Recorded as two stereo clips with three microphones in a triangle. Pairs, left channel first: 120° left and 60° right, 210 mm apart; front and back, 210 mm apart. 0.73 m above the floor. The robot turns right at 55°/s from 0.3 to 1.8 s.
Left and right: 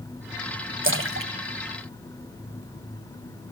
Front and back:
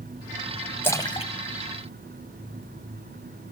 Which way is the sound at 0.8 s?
80° right.